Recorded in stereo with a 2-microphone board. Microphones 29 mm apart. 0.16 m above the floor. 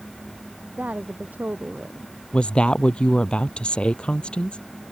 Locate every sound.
0.7 s a woman speaking: 65° right (ahead or behind); by 2.1 s 55° right (ahead or behind)
2.3 s a woman speaking: 35° left (ahead or behind)